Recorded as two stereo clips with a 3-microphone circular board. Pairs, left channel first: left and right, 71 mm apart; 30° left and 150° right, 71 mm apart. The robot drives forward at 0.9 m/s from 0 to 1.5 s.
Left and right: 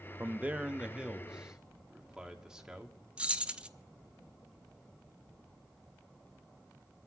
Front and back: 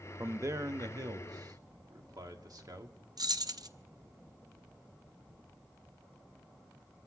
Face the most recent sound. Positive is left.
turn(degrees=-165)